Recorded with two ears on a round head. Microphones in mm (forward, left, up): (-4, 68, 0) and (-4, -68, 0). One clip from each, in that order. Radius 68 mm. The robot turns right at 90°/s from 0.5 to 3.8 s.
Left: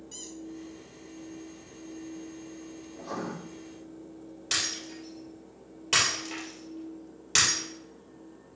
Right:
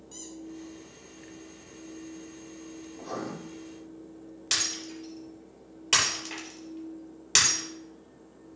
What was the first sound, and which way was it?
A squeak, centre (ahead or behind).